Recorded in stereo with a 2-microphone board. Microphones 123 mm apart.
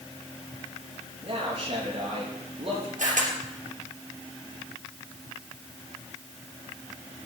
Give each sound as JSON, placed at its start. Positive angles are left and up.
{"t": 1.2, "sound": "a man speaking", "side_deg": -45, "distance_m": 5.5}
{"t": 3.0, "sound": "a camera shutter", "side_deg": -80, "distance_m": 3.0}